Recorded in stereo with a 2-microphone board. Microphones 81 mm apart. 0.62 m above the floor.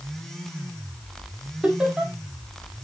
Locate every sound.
1.6 s laughter: 10° right (ahead or behind), 2 m